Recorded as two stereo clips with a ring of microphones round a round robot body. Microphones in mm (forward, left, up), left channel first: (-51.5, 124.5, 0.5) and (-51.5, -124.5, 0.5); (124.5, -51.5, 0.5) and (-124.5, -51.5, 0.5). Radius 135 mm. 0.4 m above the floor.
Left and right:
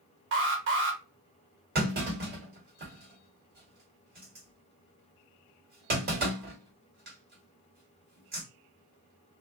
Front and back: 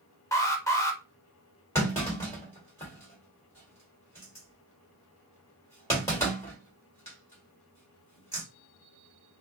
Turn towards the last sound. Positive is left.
turn(degrees=-70)